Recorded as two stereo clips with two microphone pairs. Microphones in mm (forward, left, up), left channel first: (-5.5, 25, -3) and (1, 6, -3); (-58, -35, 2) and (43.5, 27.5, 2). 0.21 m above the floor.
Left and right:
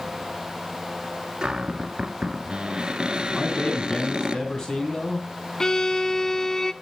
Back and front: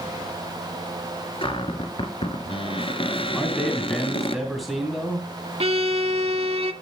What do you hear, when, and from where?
1.4 s a cupboard door: 115° right, 1.5 m
3.4 s a man speaking: 120° left, 1.9 m
5.6 s a violin: 55° left, 0.6 m